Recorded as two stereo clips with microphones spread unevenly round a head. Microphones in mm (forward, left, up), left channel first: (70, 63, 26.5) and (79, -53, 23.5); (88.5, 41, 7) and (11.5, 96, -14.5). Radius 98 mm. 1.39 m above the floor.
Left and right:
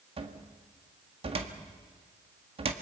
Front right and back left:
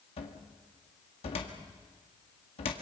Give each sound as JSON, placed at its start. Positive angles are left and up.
{"t": 0.2, "sound": "a cupboard door", "azimuth_deg": -50, "distance_m": 1.8}